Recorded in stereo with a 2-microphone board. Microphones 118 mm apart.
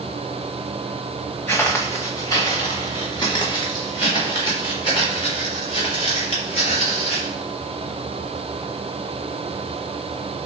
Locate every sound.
1.5 s footsteps: 20° left (ahead or behind), 1.1 m; by 7.3 s 50° left (ahead or behind), 4 m